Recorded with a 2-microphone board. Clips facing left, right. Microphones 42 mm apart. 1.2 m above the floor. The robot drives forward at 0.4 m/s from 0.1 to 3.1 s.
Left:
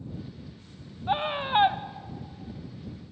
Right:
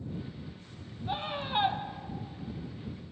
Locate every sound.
1.1 s a scream: 40° left (ahead or behind), 1.2 m; by 1.8 s 35° left (ahead or behind), 1.4 m